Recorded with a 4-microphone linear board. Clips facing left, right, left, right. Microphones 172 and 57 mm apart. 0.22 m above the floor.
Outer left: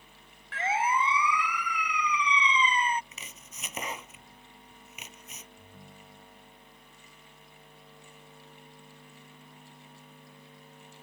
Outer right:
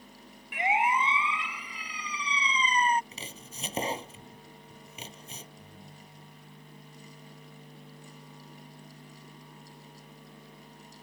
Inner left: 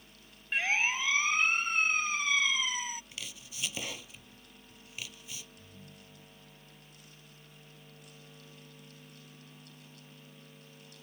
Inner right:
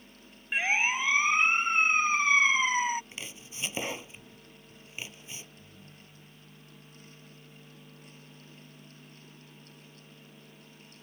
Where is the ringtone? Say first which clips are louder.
Outer right 1 dB, inner right 1 dB; 5° left (ahead or behind).